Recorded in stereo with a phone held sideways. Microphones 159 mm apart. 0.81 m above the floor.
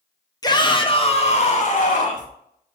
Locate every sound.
0.4 s a shout: 25° left (ahead or behind), 1.2 m; by 2.3 s 55° left (ahead or behind), 1.6 m